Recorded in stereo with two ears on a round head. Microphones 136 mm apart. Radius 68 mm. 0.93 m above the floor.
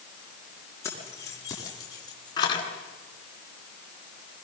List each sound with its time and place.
0.8 s keys jangling: 20° left (ahead or behind), 9 m; by 2.7 s 30° left (ahead or behind), 7 m